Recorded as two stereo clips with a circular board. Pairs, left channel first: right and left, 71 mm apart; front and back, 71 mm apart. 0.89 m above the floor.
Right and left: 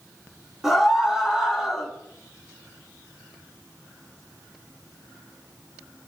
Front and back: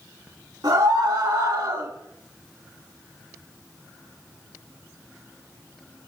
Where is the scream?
175° left, 3 m.